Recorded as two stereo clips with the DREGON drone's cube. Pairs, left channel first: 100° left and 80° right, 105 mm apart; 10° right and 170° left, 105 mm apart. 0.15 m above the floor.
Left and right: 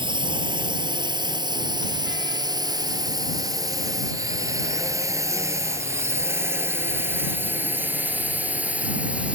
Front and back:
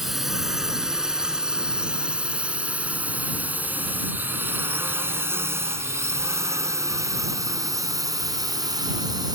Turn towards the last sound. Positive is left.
turn(degrees=-155)